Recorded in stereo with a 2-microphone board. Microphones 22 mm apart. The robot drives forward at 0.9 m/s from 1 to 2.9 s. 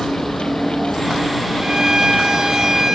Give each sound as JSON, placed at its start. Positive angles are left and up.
{"t": 0.0, "sound": "a vehicle", "side_deg": 0}
{"t": 1.6, "sound": "a violin", "side_deg": -35}